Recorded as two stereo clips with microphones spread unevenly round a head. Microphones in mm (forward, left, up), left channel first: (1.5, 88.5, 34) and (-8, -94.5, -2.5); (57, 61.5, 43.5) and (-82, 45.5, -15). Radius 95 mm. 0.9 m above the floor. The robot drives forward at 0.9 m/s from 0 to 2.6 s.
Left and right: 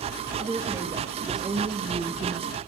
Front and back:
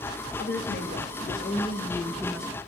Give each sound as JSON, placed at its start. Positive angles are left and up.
{"t": 0.4, "sound": "a woman speaking", "azimuth_deg": -20, "distance_m": 1.8}